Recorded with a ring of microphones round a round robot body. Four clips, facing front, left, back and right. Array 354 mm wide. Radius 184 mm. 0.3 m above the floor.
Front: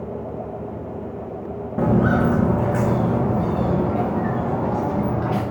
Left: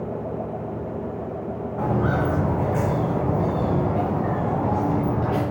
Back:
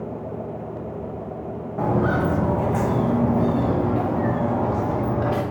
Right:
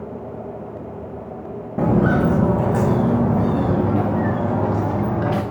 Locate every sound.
1.8 s footsteps: 55° right, 1.4 m; by 5.4 s 90° right, 3.5 m